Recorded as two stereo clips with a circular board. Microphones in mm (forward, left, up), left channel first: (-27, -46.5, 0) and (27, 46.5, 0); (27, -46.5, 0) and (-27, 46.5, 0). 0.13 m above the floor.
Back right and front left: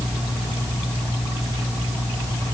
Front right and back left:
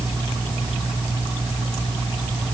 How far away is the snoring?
No snoring in this recording.